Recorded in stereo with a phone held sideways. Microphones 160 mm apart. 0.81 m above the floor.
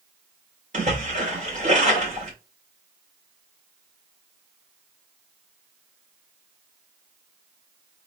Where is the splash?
45° right (ahead or behind), 2.5 m.